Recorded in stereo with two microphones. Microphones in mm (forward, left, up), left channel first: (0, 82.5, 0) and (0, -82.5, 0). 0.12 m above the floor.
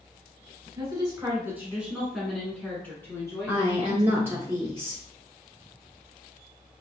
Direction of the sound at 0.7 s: 20° right (ahead or behind).